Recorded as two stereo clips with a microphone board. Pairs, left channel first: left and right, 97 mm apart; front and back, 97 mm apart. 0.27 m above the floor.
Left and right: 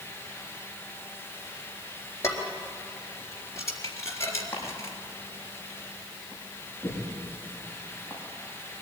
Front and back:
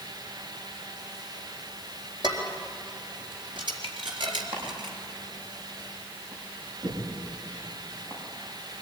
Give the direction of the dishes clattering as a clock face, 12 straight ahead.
7 o'clock.